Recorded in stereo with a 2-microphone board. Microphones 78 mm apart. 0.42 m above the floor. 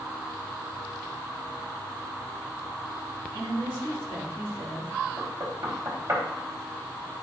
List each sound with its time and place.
3.3 s a woman speaking: 30° left (ahead or behind), 4 m; by 4.9 s 40° left (ahead or behind), 6 m
5.2 s knocking: 40° right (ahead or behind), 1.9 m